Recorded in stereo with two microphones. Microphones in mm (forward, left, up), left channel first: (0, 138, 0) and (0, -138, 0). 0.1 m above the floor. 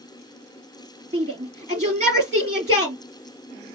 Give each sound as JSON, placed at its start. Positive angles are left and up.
{"t": 1.1, "sound": "a shout", "side_deg": -25, "distance_m": 2.0}